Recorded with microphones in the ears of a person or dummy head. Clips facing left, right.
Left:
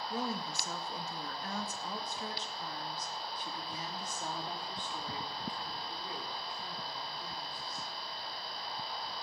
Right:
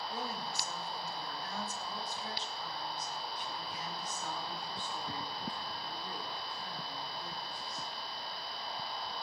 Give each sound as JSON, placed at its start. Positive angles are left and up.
{"t": 0.1, "sound": "a woman speaking", "side_deg": 80, "distance_m": 2.0}